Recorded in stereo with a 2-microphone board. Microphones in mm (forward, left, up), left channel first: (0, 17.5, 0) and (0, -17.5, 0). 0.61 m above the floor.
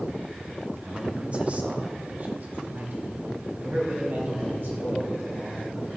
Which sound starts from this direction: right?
A man speaking, at 0.8 s.